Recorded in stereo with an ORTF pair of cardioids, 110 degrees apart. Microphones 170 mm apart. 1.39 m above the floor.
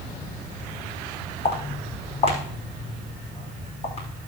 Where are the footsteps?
40° left, 5 m.